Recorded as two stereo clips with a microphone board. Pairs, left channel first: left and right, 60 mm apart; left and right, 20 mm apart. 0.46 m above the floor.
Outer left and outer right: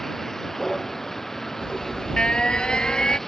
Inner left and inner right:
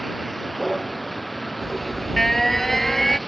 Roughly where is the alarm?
Centre.